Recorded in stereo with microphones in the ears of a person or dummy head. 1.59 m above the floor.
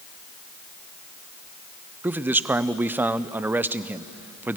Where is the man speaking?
10° right (ahead or behind), 0.6 m.